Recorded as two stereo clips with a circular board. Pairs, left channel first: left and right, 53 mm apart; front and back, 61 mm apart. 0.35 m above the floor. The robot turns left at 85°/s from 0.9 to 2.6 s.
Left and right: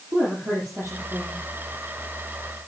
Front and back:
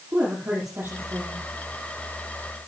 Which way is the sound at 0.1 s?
130° right.